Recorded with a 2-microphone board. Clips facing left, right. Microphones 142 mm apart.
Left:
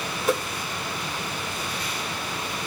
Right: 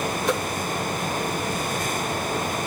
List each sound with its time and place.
0.3 s a whoosh: 5° left (ahead or behind), 1.3 m